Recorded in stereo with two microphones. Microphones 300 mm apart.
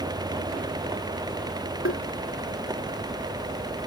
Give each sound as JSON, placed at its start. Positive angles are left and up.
{"t": 1.9, "sound": "tapping", "side_deg": 45}